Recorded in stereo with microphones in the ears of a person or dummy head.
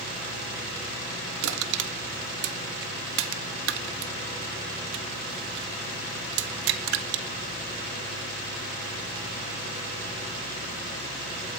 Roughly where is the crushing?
Right.